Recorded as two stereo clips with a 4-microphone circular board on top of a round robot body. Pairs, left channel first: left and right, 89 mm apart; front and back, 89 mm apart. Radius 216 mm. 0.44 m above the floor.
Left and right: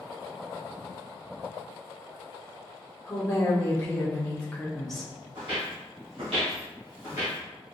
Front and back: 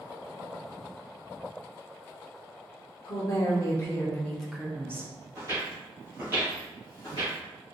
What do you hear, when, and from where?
3.1 s a woman speaking: 30° left, 1.2 m; by 5.1 s straight behind, 0.9 m
5.3 s footsteps: 125° right, 1.5 m; by 7.4 s 5° right, 0.5 m